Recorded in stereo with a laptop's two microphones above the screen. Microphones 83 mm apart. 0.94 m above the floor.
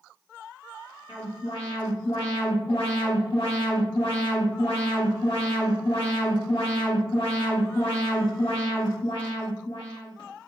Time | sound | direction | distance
1.1 | an alarm | 85° left | 1.4 m